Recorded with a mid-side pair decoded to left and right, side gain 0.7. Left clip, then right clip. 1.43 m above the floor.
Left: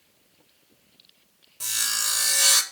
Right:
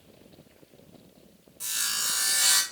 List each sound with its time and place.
1.6 s sawing: 25° left, 3 m